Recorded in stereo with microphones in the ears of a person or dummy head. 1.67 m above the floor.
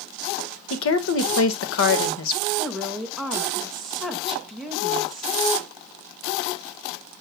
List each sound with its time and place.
0.7 s a woman speaking: 80° left, 1.8 m
2.6 s a woman speaking: 5° left (ahead or behind), 2 m